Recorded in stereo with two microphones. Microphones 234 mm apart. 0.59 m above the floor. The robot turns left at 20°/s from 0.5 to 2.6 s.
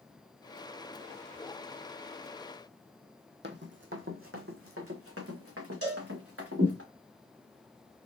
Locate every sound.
3.4 s running footsteps: 50° right (ahead or behind), 0.9 m; by 6.8 s 75° right (ahead or behind), 2.5 m
5.8 s a cowbell: 70° right (ahead or behind), 1.7 m